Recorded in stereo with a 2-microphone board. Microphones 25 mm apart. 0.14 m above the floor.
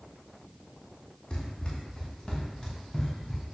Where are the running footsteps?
30° left (ahead or behind), 7 m; by 3.5 s 10° left (ahead or behind), 7 m.